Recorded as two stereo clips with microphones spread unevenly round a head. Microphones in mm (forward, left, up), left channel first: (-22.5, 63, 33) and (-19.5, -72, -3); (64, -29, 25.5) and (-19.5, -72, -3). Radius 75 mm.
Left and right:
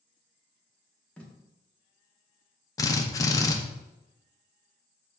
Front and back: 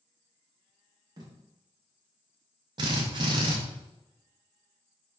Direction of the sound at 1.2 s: Straight behind.